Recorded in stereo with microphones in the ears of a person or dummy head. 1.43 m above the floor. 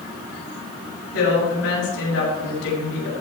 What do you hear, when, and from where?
1.1 s a woman speaking: 85° left, 6.5 m